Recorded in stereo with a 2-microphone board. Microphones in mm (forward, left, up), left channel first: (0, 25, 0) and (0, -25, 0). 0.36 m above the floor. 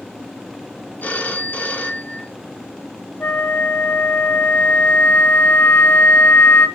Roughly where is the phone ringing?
Left.